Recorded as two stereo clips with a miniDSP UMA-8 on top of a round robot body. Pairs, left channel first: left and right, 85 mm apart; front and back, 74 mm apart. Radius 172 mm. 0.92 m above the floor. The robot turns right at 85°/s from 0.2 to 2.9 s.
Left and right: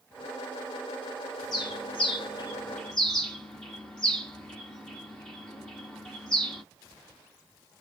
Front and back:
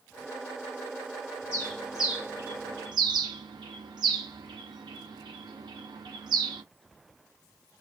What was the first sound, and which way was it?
A bird, 50° left.